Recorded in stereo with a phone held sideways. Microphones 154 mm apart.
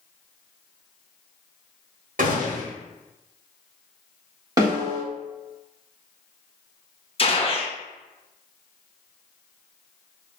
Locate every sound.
2.2 s a gunshot: 70° right (ahead or behind), 1.0 m
4.6 s a snare drum: 25° right (ahead or behind), 1.6 m
7.2 s a gunshot: 40° left (ahead or behind), 0.5 m